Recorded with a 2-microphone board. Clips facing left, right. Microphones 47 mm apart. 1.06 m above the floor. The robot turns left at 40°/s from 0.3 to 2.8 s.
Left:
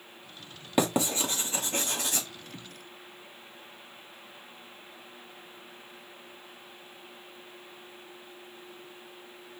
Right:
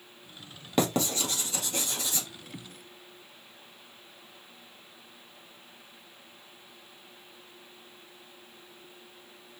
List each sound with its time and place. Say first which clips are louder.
0.8 s writing: left 1 dB; 10° left (ahead or behind), 1.4 m; by 2.3 s 60° left (ahead or behind), 1.4 m